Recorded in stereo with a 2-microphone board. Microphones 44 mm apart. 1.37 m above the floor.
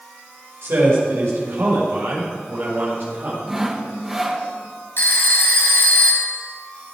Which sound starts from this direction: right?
A man speaking, at 0.6 s.